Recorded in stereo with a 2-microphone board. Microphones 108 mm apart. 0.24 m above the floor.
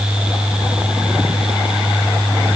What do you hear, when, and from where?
Only background noise.